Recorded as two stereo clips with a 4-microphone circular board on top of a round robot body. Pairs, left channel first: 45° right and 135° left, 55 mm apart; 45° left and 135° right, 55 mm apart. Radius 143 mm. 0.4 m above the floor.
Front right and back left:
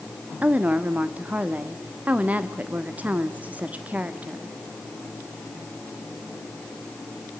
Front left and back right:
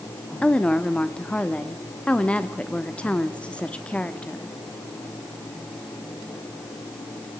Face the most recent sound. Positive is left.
turn(degrees=100)